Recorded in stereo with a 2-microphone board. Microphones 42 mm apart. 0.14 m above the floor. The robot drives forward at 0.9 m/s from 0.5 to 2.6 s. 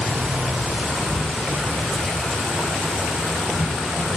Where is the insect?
25° right (ahead or behind), 0.8 m; by 4.2 s 5° right (ahead or behind), 2.5 m.